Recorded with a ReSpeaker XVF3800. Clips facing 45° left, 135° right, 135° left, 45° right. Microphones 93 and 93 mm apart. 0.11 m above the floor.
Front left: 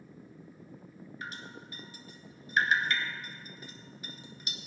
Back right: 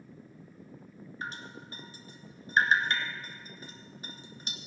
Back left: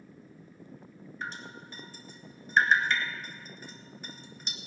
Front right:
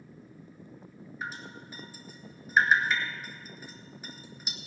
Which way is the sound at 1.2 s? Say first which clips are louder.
Back right 3 dB, even; 125° right.